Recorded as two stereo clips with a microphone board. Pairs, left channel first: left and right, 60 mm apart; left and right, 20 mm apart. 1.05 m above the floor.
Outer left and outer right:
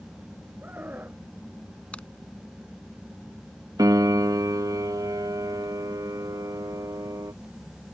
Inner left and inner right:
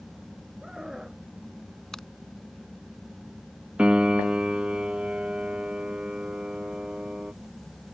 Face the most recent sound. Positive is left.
turn(degrees=-75)  # may be behind; listen again after turning